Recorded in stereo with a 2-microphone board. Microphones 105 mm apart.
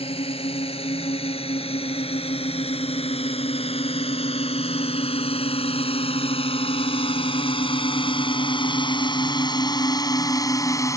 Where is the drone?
70° left (ahead or behind); by 11.0 s 30° left (ahead or behind).